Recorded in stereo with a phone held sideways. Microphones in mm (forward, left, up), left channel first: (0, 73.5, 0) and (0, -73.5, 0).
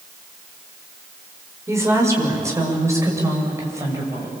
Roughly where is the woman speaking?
Centre.